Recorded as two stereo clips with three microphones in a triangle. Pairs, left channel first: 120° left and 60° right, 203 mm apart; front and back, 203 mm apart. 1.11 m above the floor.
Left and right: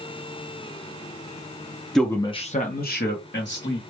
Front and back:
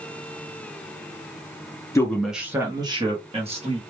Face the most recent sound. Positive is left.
turn(degrees=125)